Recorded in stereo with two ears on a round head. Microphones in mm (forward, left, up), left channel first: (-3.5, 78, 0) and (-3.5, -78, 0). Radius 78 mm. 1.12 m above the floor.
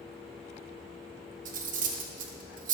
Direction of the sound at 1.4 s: 45° right (ahead or behind).